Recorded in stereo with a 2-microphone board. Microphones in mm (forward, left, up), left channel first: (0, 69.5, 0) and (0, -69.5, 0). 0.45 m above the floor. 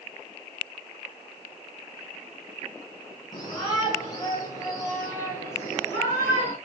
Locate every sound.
3.3 s a shout: 30° left (ahead or behind), 5 m; by 6.5 s 15° left (ahead or behind), 6.5 m